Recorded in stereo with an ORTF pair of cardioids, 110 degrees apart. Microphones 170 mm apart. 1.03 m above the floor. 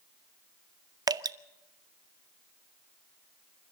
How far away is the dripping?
About 1.0 m.